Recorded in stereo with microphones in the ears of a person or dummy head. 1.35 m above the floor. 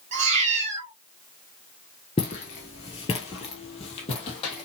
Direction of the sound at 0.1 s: 35° right (ahead or behind).